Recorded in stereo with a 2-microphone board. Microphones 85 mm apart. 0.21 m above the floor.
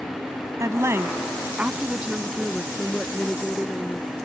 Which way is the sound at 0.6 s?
40° right (ahead or behind).